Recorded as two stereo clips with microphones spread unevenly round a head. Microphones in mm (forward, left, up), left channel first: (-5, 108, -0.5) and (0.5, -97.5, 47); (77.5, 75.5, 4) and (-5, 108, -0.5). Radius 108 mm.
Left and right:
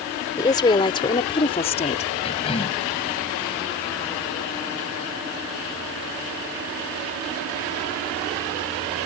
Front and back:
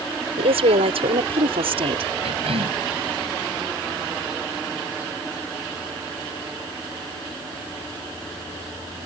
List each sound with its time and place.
0.4 s a woman speaking: 165° left; by 2.1 s 150° left
2.2 s a cough: 155° left